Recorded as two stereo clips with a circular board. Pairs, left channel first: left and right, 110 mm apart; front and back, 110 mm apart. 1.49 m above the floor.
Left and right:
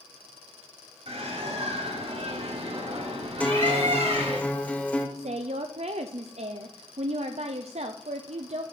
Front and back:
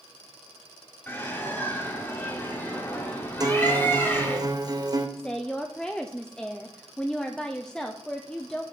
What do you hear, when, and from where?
1.1 s a bird: 70° right, 1.9 m
3.4 s a guitar: 160° left, 0.8 m
5.2 s a woman speaking: 85° right, 0.5 m